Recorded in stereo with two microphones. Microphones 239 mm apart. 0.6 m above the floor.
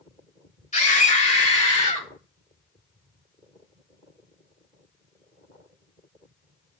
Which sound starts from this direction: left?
A scream, at 0.7 s.